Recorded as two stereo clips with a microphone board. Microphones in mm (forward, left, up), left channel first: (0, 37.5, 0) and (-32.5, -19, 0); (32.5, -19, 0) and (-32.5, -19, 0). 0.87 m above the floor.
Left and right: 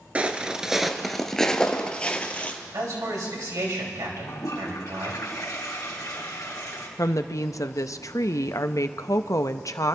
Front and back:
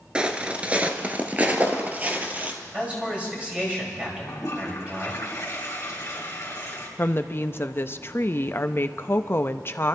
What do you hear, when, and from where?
0.1 s footsteps: 135° right, 0.8 m; by 2.6 s 120° left, 1.4 m
2.7 s a man speaking: 110° right, 4 m
4.3 s a toilet flushing: 45° left, 2.5 m
7.0 s a woman speaking: 45° left, 0.6 m